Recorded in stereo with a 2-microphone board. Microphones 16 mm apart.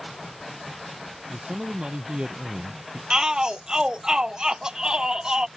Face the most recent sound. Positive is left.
turn(degrees=-40)  # may be behind; listen again after turning